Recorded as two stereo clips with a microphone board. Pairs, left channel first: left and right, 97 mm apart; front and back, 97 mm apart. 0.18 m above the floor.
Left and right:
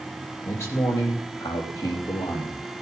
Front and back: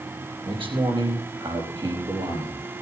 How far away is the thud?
No thud in this recording.